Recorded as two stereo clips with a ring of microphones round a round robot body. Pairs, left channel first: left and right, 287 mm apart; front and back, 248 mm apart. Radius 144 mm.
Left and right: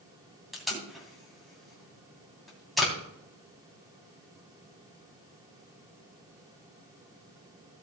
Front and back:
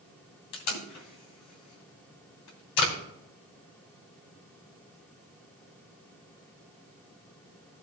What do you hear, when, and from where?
0.5 s tape being pulled: straight ahead, 3 m